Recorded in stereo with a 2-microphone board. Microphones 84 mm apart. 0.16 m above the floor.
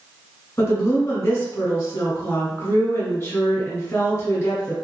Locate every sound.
0.6 s a woman speaking: 30° left (ahead or behind), 1.1 m